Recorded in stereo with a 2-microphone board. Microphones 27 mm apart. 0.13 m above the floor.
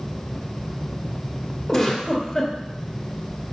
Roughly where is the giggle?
Centre.